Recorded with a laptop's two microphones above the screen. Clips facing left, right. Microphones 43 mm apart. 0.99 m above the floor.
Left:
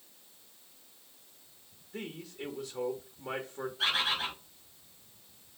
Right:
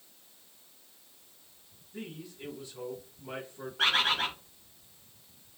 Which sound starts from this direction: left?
A man speaking, at 1.9 s.